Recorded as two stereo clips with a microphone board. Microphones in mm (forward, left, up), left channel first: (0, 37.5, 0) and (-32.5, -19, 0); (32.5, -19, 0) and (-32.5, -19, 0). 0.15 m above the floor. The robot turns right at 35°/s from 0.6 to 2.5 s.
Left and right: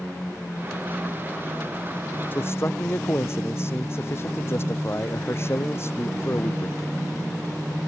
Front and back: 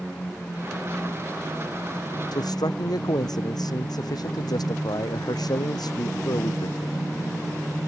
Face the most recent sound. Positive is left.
turn(degrees=10)